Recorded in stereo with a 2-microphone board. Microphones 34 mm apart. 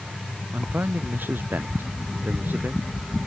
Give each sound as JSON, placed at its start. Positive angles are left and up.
{"t": 0.5, "sound": "a man speaking", "side_deg": -80}